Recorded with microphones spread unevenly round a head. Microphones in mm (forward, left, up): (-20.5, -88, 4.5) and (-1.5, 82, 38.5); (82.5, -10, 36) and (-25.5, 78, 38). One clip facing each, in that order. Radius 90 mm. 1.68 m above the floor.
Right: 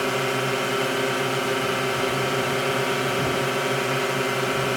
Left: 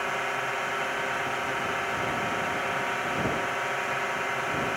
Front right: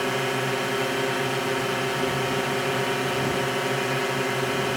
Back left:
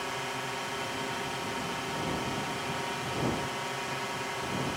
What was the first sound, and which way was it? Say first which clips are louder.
A drone: right 8 dB, front right 11 dB; 60° right.